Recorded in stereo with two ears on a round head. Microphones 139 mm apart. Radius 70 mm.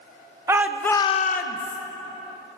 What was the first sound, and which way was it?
A shout, 15° right (ahead or behind).